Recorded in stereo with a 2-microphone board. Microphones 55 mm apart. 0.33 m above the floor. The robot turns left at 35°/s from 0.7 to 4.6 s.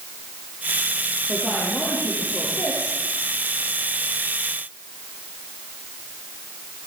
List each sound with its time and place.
1.3 s a woman speaking: 175° left, 9 m; by 3.0 s 115° left, 9 m